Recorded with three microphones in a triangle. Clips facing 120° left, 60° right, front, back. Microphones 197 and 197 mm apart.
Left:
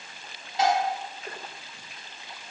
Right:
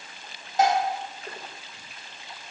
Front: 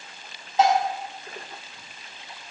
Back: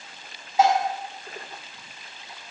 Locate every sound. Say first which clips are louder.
0.6 s dishes clattering: right 2 dB, even; 100° right, 5 m